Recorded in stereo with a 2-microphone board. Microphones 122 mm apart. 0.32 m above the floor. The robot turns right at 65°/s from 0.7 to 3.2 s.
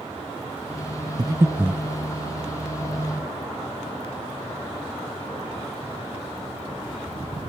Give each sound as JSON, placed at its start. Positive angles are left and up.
{"t": 1.2, "sound": "breathing", "side_deg": -35, "distance_m": 0.6}